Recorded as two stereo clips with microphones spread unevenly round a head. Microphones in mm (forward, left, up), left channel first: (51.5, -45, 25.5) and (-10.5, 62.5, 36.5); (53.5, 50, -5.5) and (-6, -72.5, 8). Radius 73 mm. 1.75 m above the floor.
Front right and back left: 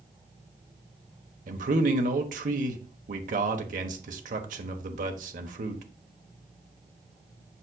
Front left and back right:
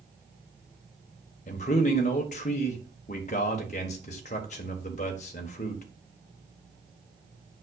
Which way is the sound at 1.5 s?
110° left.